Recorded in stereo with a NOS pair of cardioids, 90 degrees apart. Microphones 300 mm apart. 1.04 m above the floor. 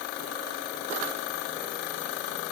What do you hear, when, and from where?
Only background noise.